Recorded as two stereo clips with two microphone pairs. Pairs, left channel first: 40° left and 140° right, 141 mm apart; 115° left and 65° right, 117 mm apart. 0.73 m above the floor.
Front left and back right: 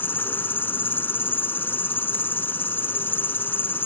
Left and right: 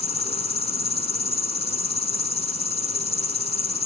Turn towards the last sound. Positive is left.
turn(degrees=115)